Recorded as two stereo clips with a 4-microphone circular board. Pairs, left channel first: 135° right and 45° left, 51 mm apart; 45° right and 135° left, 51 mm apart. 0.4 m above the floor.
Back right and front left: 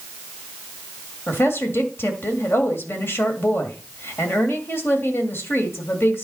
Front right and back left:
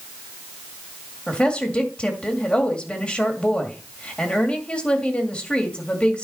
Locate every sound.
1.3 s a woman speaking: 105° right, 2 m